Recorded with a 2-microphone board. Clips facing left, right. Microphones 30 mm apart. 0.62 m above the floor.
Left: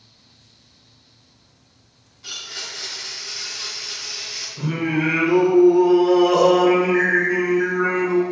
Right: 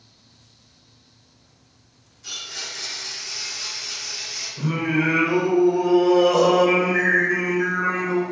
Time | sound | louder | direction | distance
2.2 | a blender | left 1 dB | 30° left (ahead or behind) | 1.2 m
4.6 | singing | even | 5° left (ahead or behind) | 1.0 m